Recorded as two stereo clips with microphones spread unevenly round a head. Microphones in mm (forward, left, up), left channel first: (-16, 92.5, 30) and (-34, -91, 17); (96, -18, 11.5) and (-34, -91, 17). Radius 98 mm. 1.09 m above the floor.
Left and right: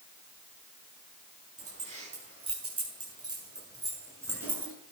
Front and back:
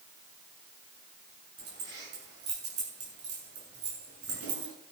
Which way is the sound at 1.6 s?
150° right.